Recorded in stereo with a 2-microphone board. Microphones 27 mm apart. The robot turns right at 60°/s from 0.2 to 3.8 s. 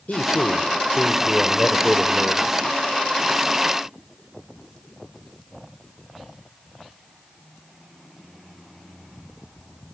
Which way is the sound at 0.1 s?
80° left.